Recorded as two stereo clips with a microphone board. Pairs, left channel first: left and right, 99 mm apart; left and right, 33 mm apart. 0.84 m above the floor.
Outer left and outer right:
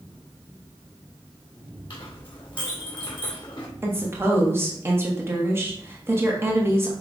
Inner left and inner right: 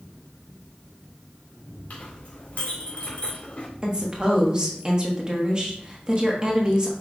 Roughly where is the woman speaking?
Right.